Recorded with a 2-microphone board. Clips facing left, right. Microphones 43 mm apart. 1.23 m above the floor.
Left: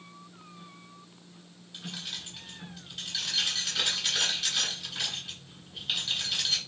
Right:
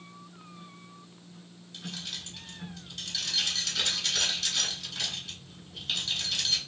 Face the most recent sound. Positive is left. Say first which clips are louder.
# even
turn(degrees=10)  # may be behind; listen again after turning